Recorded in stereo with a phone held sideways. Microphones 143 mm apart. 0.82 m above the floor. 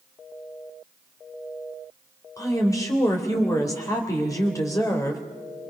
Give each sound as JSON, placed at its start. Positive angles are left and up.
{"t": 2.4, "sound": "a woman speaking", "side_deg": 20, "distance_m": 3.5}